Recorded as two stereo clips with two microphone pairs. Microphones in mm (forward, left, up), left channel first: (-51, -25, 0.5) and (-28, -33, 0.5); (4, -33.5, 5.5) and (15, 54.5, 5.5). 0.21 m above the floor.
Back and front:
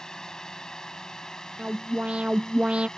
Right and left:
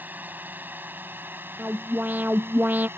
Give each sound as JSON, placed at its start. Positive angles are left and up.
{"t": 0.0, "sound": "a drone", "azimuth_deg": 130}
{"t": 1.6, "sound": "an alarm", "azimuth_deg": 15}